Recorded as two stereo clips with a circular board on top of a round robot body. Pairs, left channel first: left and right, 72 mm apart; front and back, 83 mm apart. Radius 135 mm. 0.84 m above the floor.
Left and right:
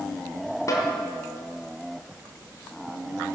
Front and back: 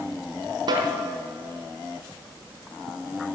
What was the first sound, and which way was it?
A snare drum, 140° left.